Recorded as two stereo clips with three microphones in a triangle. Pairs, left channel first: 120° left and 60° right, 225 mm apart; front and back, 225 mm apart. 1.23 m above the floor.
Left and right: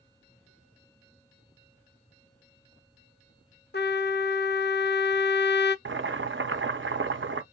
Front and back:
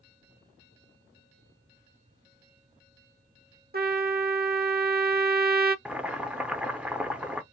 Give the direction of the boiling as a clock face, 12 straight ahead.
3 o'clock.